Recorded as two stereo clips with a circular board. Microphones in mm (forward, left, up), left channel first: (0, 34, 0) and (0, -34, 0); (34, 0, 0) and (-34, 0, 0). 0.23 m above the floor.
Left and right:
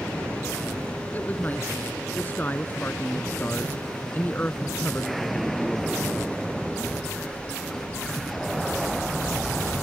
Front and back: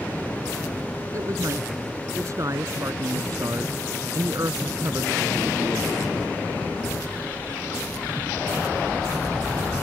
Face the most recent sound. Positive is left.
turn(degrees=150)